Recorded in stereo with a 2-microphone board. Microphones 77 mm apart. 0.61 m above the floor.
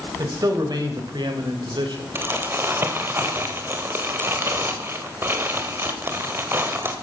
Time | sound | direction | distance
0.2 | a man speaking | 50° right (ahead or behind) | 3.5 m
2.1 | crumpling | 30° right (ahead or behind) | 1.7 m